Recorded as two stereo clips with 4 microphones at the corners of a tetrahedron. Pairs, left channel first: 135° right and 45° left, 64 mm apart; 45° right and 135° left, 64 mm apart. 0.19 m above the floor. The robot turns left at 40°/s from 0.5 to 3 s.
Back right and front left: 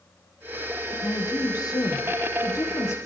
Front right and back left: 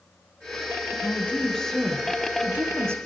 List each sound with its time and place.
0.9 s a woman speaking: 95° right, 7.5 m; by 3.0 s straight behind, 7.5 m